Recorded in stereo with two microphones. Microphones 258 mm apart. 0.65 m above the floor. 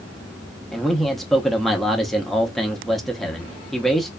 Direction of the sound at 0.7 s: Centre (ahead or behind).